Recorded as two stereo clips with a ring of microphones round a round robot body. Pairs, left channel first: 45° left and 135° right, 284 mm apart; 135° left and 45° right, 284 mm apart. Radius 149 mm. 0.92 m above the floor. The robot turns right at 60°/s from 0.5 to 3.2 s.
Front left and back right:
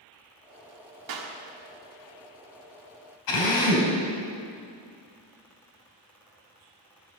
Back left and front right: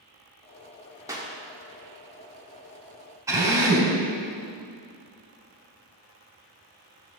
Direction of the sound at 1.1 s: 125° right.